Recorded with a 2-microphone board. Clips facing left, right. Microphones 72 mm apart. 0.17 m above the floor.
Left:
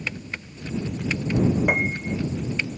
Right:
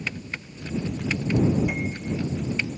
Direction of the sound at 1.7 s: 60° left (ahead or behind).